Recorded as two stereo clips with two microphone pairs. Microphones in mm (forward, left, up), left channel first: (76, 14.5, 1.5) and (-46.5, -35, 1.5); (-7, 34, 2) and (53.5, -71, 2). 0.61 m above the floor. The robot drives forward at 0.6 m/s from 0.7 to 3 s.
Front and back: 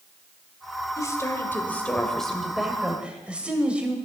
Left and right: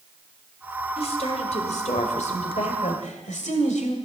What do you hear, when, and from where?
1.0 s a woman speaking: 85° left, 1.9 m; by 4.0 s 120° left, 2 m